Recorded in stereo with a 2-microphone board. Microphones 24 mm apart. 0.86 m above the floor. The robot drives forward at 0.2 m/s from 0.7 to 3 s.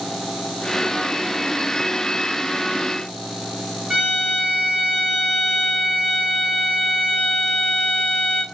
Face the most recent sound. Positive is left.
turn(degrees=-10)  # may be behind; listen again after turning